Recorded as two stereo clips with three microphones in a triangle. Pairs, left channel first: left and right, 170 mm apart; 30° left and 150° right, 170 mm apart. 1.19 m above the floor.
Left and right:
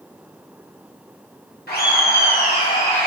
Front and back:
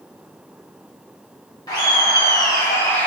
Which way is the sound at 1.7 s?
95° left.